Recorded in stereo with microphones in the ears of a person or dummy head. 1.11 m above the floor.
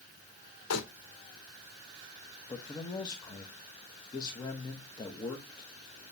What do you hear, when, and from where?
0.7 s crumpling: 85° left, 2.5 m
2.5 s a man speaking: 25° left (ahead or behind), 1.2 m